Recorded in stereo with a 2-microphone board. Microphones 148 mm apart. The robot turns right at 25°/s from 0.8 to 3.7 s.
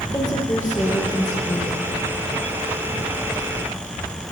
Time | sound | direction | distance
0.1 | a woman speaking | 25° left (ahead or behind) | 0.8 m